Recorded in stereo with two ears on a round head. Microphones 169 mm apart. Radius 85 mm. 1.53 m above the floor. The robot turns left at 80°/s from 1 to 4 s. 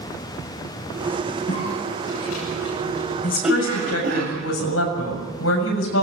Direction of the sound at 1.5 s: 25° left (ahead or behind).